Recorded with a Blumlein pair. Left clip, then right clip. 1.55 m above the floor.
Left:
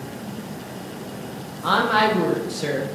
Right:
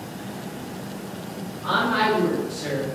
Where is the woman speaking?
30° left, 0.8 m.